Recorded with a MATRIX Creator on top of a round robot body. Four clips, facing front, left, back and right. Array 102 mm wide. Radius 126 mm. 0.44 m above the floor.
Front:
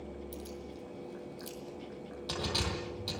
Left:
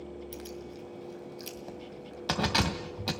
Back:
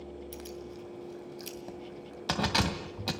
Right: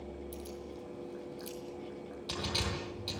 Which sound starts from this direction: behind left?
Keys jangling, at 0.3 s.